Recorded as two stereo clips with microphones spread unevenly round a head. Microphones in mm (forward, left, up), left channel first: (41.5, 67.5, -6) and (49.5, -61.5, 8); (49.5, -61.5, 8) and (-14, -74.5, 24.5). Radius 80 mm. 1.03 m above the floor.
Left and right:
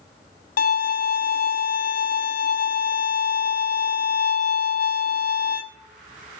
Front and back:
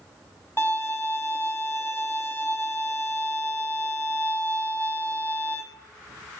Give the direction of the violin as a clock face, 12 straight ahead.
9 o'clock.